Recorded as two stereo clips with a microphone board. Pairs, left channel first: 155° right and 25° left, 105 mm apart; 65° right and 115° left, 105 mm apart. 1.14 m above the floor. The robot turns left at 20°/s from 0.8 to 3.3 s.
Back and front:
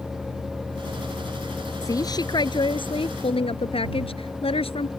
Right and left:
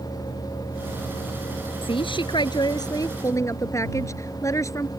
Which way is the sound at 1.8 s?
100° right.